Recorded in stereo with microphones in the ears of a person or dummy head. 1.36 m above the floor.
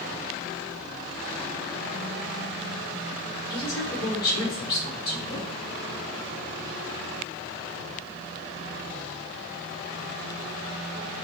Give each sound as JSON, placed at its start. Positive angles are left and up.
{"t": 3.5, "sound": "a woman speaking", "side_deg": 20, "distance_m": 4.0}